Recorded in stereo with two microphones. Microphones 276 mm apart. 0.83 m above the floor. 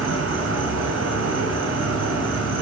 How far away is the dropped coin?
I don't hear a dropped coin.